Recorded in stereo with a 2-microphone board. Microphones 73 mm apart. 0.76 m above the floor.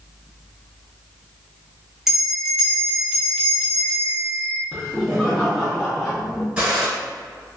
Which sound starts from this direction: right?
A gunshot, at 6.6 s.